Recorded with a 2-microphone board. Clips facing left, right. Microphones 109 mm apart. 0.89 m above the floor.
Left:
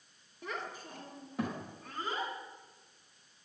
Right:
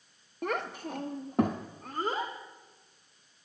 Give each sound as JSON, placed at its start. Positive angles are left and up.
{"t": 0.4, "sound": "a child speaking", "side_deg": -60, "distance_m": 0.6}